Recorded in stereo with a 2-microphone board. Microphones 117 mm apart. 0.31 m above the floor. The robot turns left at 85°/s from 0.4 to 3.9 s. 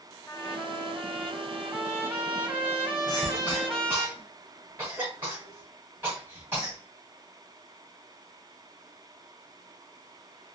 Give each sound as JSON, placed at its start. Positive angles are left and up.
{"t": 0.3, "sound": "a trumpet", "side_deg": 20, "distance_m": 1.5}
{"t": 3.1, "sound": "a cough", "side_deg": 40, "distance_m": 1.7}